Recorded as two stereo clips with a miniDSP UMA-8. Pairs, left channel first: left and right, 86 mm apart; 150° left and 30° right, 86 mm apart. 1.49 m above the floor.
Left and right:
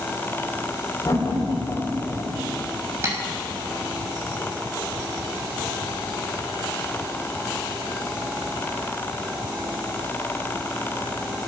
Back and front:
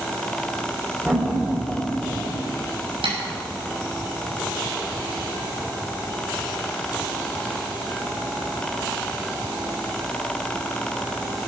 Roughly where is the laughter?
Ahead left.